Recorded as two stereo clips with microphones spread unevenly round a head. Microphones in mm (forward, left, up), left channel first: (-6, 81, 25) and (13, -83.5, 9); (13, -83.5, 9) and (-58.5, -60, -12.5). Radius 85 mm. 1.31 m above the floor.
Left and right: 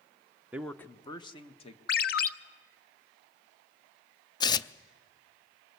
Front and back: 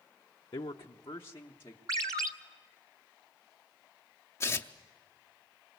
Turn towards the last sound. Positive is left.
turn(degrees=40)